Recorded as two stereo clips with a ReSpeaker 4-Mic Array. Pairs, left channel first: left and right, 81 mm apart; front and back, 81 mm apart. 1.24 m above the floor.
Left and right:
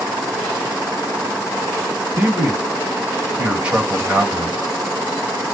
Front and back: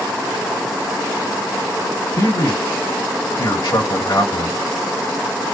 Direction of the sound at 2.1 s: 15° right.